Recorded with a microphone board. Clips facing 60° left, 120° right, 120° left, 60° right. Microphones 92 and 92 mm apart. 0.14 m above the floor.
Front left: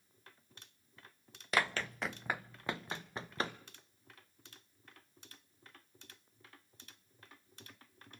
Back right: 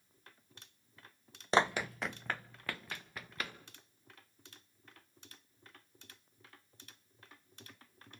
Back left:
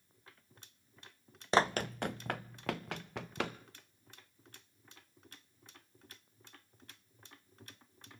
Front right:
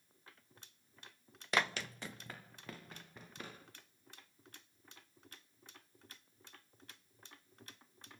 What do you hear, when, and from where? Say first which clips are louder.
1.5 s running footsteps: back right 4 dB, back left 7 dB; straight behind, 0.6 m; by 3.6 s 120° left, 1.6 m